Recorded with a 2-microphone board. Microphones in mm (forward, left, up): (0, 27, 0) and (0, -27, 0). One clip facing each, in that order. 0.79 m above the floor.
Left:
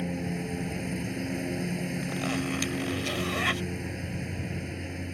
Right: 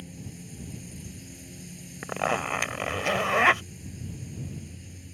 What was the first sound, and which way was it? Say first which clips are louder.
A lawn mower: left 12 dB; 60° left (ahead or behind).